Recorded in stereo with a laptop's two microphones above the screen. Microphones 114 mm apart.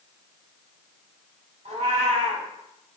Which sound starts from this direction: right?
A cat meowing, at 1.6 s.